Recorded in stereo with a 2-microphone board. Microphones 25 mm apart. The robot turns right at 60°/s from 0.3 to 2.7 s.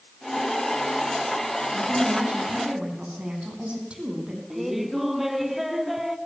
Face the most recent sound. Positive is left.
turn(degrees=-10)  # may be behind; listen again after turning